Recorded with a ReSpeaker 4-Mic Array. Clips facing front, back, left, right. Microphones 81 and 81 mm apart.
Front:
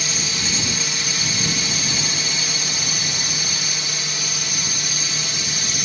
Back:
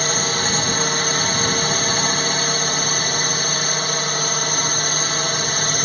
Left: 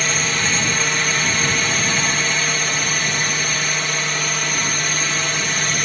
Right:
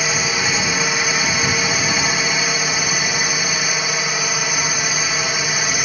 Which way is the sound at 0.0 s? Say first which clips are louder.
Back 7 dB, right 1 dB; 165° right.